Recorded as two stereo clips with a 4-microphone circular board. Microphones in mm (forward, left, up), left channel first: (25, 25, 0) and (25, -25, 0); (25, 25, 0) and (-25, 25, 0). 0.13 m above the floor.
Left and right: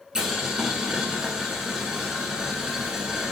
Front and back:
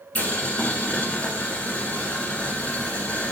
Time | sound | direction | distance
0.1 | boiling | 25° right | 0.9 m